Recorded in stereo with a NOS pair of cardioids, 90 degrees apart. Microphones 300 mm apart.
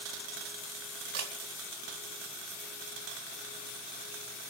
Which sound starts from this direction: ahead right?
A camera shutter, at 1.1 s.